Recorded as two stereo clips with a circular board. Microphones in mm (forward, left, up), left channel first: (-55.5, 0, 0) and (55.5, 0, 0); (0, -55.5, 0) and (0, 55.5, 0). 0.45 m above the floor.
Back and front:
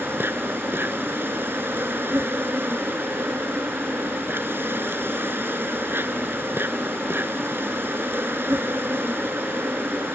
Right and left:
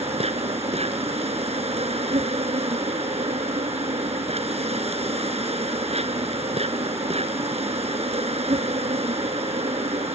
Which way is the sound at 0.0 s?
70° left.